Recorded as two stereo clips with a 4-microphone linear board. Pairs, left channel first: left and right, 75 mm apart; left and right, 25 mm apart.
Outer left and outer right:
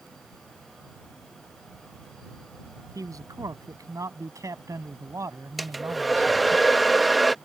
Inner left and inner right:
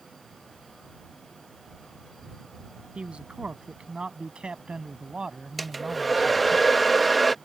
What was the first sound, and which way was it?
A man speaking, 50° right (ahead or behind).